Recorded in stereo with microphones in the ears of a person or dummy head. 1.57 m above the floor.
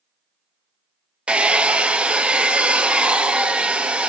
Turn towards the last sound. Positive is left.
turn(degrees=-5)  # may be behind; listen again after turning